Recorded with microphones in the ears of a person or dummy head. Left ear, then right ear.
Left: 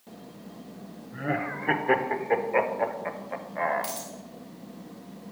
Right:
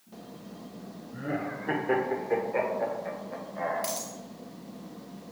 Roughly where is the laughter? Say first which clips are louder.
Left 4 dB; left.